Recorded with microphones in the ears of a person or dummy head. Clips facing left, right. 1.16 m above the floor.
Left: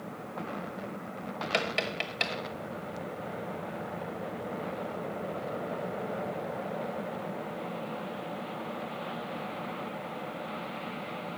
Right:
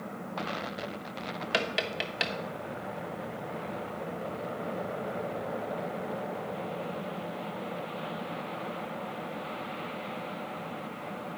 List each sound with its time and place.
1.5 s tapping: 15° right (ahead or behind), 0.7 m